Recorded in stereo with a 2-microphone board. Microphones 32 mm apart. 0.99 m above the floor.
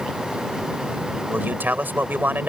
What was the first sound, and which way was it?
A man speaking, 80° right.